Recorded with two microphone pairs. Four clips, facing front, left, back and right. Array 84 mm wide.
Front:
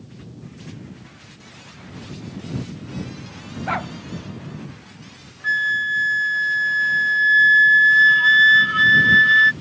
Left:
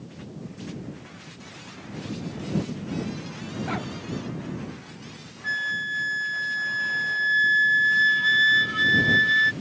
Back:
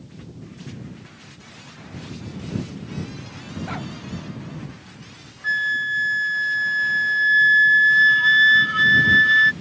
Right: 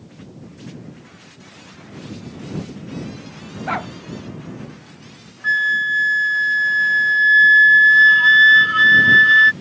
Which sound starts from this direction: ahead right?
A dog barking, at 3.7 s.